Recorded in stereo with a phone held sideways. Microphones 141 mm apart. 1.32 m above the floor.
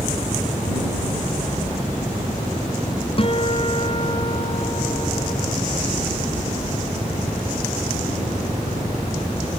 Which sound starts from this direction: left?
A guitar, at 3.2 s.